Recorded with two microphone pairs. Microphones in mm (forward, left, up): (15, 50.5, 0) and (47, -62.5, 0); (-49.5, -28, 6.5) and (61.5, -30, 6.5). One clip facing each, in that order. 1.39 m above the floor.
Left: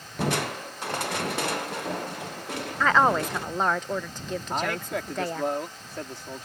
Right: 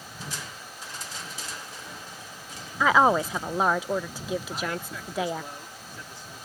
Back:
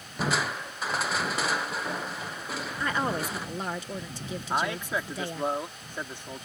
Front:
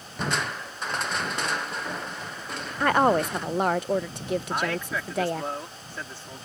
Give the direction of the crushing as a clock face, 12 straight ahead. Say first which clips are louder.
Left 14 dB, even; 9 o'clock.